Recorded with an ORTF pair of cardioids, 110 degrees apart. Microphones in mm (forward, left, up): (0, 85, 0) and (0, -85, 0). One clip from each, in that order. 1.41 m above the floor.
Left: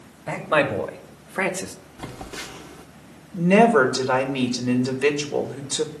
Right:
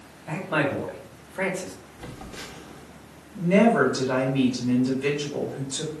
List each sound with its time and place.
0.3 s a man speaking: 60° left, 3 m
2.0 s a phone buzzing: 50° left, 1.2 m
3.3 s a woman speaking: 65° left, 2.5 m